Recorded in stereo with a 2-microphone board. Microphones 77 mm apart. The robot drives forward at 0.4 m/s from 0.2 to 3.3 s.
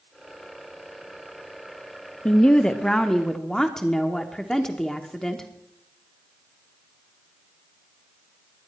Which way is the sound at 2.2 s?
15° left (ahead or behind).